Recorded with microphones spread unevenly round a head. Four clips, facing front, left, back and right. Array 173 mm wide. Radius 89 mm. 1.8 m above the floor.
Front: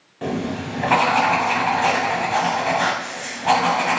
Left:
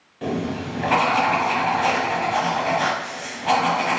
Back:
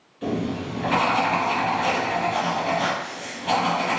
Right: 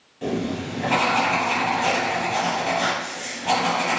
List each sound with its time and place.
0.2 s writing: 15° left, 0.8 m